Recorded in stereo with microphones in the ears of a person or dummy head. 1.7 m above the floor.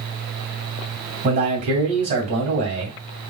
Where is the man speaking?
35° right (ahead or behind), 2.5 m.